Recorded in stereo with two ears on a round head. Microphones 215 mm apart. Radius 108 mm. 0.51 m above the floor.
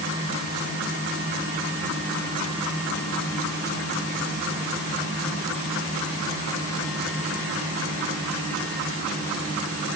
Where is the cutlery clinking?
I don't hear cutlery clinking.